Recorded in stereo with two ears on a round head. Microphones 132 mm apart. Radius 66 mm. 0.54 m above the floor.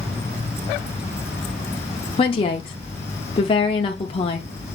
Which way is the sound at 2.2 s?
40° left (ahead or behind).